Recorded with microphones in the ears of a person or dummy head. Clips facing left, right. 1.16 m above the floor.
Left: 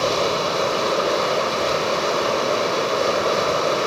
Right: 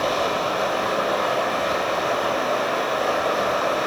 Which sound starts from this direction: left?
Running water, at 0.0 s.